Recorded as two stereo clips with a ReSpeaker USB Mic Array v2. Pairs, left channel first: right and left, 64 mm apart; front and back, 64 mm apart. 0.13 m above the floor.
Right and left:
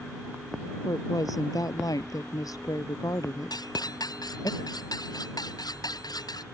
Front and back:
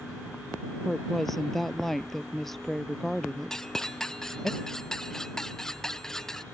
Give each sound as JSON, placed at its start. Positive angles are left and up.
{"t": 0.8, "sound": "a woman speaking", "azimuth_deg": -85}
{"t": 3.5, "sound": "cutlery clinking", "azimuth_deg": -80}